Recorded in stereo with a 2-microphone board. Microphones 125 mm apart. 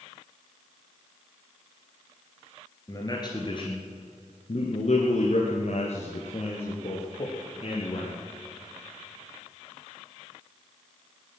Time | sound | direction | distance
2.9 | a man speaking | 25° left (ahead or behind) | 2.5 m